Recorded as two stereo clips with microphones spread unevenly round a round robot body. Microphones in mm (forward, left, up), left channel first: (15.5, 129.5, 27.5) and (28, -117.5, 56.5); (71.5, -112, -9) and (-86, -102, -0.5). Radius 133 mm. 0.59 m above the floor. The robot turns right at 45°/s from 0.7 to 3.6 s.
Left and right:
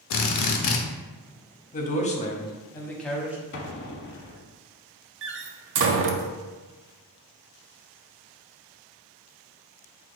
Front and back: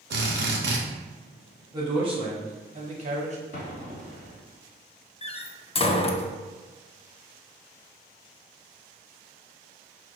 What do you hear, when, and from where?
0.1 s a drill: 135° left, 0.6 m; by 0.8 s 140° left, 0.6 m
1.7 s a man speaking: 110° left, 0.9 m; by 3.4 s 175° right, 0.9 m
3.5 s an explosion: 40° left, 0.8 m; by 4.5 s 45° left, 0.8 m
5.2 s a door slam: 50° right, 0.5 m